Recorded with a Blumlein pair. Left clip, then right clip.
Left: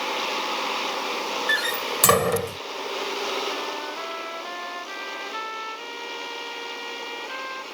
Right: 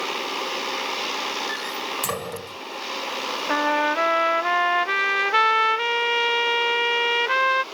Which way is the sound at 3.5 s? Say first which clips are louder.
Right 9 dB; 35° right.